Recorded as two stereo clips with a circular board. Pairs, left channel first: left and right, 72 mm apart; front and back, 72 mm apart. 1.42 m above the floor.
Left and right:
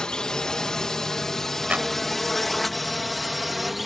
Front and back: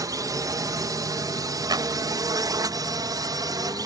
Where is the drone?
170° left; by 3.9 s straight behind.